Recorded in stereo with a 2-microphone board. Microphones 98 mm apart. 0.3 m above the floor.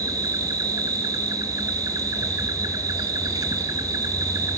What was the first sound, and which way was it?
An insect, 45° right (ahead or behind).